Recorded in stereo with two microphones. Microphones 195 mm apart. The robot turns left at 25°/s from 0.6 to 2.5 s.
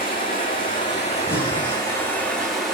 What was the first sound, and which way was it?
Running water, 50° left.